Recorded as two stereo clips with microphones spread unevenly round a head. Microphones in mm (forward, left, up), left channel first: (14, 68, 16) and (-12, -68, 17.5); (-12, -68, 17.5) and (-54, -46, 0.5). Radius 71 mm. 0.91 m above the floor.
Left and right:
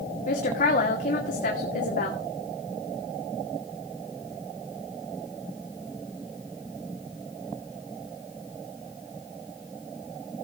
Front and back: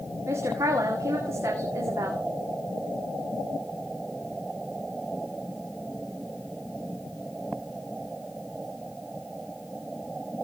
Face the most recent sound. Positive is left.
turn(degrees=115)